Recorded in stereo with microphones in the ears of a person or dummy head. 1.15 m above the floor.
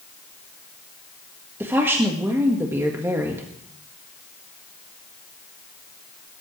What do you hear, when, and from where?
1.6 s a woman speaking: 10° right (ahead or behind), 1.6 m